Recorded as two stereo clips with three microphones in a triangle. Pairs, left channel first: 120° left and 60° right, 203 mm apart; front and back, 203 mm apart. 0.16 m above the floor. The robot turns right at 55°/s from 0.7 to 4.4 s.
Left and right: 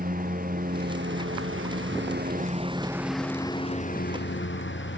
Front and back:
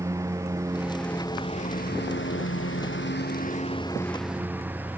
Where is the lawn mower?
105° right; by 5.0 s 100° left.